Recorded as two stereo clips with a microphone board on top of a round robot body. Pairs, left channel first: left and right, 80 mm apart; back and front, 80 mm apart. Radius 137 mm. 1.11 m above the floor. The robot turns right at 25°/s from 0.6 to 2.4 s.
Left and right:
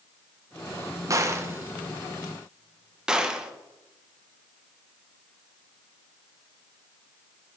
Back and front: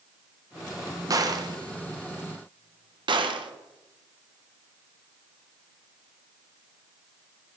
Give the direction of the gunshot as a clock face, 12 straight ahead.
1 o'clock.